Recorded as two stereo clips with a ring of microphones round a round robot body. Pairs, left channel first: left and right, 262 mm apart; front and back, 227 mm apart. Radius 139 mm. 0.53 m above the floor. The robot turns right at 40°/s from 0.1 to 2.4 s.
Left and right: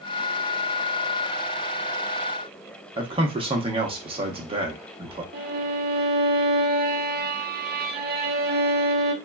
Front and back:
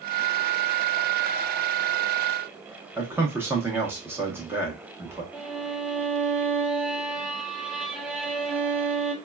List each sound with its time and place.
3.0 s a man speaking: 115° right, 0.7 m
5.3 s a violin: 95° right, 0.6 m